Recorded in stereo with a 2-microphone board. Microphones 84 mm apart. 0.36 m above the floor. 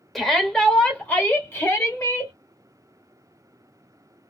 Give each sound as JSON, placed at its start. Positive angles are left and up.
{"t": 0.1, "sound": "a shout", "side_deg": 5, "distance_m": 1.6}